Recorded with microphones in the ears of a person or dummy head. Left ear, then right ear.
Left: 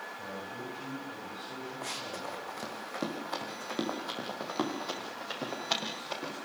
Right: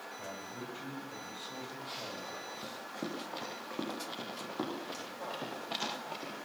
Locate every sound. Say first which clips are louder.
0.2 s a man speaking: left 3 dB; 20° right (ahead or behind), 8 m
1.8 s running footsteps: left 5 dB; 70° left (ahead or behind), 6 m; by 6.3 s 85° left, 12 m